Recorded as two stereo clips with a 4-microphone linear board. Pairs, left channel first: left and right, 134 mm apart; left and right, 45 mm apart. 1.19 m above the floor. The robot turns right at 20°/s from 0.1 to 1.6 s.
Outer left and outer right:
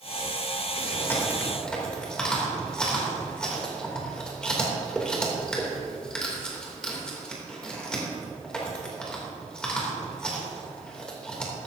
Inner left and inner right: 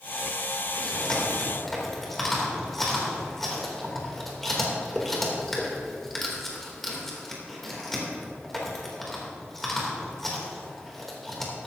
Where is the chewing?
20° left (ahead or behind), 2.5 m; by 11.7 s 5° left (ahead or behind), 2.5 m.